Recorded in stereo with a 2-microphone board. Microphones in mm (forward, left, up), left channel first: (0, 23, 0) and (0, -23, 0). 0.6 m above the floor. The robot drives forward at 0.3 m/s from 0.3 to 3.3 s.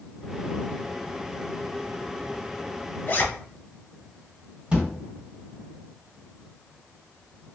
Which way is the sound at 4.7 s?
20° right (ahead or behind).